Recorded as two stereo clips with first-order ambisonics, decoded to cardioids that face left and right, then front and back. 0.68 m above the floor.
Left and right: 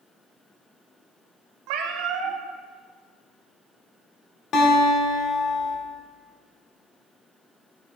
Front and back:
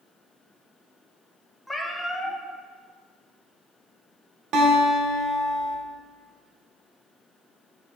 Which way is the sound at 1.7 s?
85° right.